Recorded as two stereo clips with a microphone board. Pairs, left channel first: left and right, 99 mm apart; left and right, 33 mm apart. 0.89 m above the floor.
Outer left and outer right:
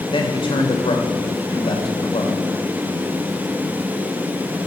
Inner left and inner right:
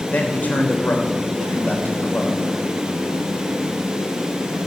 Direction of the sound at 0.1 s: 60° left (ahead or behind).